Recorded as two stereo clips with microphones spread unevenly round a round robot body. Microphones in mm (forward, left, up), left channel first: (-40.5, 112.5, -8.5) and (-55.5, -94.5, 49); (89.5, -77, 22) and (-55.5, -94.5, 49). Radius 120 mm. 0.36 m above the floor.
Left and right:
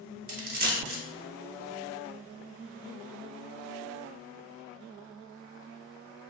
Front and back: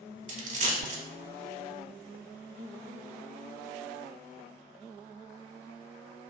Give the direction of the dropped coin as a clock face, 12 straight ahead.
5 o'clock.